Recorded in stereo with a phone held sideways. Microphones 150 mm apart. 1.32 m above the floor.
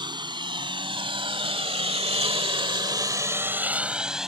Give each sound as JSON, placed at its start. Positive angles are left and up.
{"t": 0.0, "sound": "a lawn mower", "side_deg": -30}